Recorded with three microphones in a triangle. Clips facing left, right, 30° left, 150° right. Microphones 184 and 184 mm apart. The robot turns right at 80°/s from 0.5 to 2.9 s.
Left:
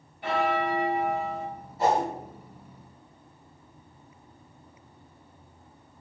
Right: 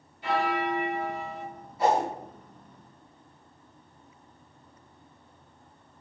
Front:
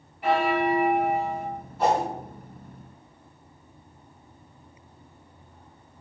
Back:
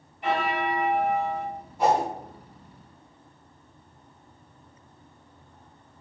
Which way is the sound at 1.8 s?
140° left.